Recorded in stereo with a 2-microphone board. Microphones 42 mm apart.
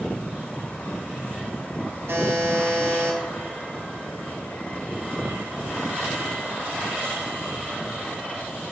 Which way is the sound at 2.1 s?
75° right (ahead or behind).